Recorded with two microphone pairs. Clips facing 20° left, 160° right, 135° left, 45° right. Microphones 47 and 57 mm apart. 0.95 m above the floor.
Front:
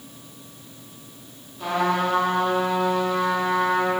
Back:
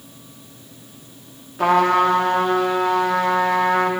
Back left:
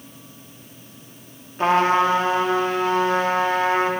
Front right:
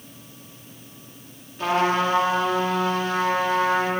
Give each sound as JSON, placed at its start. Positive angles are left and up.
{"t": 1.6, "sound": "a trumpet", "azimuth_deg": -170, "distance_m": 1.0}